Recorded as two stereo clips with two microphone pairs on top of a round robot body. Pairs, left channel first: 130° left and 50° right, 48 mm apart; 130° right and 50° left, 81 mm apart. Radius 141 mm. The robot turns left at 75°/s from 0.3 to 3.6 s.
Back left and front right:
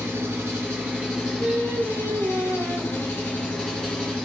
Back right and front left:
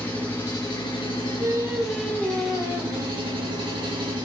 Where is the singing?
Straight ahead, 1.3 m; by 4.2 s 165° right, 1.3 m.